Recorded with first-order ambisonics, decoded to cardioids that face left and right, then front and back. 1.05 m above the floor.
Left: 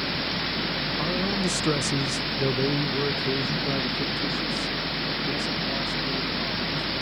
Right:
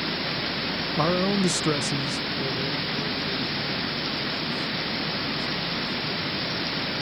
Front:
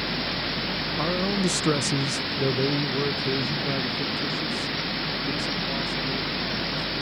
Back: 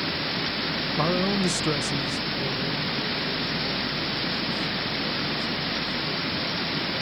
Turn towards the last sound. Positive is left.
turn(degrees=45)